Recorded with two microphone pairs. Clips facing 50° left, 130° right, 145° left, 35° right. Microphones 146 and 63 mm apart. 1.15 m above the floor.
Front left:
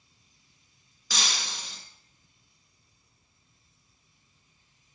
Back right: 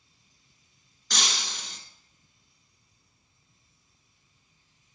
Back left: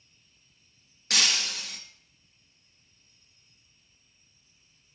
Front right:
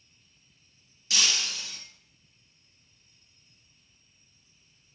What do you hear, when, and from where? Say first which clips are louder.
1.1 s breaking glass: back right 1 dB, back left 1 dB; 135° left, 2 m